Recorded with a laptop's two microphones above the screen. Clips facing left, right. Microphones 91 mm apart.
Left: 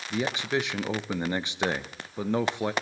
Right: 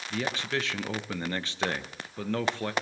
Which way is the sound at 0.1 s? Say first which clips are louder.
Left 3 dB; 15° left (ahead or behind).